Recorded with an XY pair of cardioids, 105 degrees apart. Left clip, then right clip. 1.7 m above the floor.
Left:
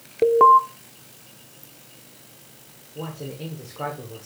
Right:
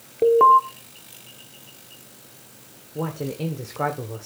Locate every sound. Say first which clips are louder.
0.2 s an alarm: even; 20° left, 0.8 m
3.0 s a man speaking: right 5 dB; 40° right, 1.1 m